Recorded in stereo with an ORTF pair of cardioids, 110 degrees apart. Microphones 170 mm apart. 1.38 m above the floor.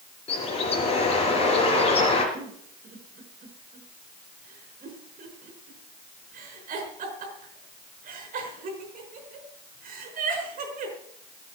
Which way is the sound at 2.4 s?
55° right.